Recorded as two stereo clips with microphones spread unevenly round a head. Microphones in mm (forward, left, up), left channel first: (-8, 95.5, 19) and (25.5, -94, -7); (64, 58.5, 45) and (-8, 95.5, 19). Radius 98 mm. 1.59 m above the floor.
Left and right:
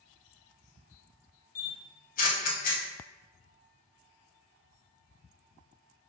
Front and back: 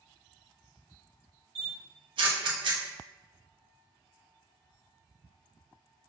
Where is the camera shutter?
130° left, 0.7 m.